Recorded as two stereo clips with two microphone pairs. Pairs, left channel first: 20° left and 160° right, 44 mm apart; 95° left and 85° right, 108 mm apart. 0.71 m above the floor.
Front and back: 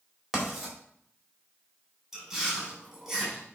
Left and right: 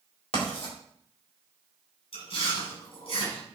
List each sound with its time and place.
0.3 s writing: 110° left, 4 m
2.1 s chewing: 115° left, 5 m